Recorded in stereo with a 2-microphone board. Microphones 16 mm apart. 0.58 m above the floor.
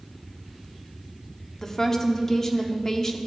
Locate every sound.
1.6 s a woman speaking: 30° left (ahead or behind), 1.1 m